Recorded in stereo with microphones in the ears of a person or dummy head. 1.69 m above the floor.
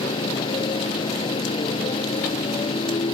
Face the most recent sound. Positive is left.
turn(degrees=25)  # may be behind; listen again after turning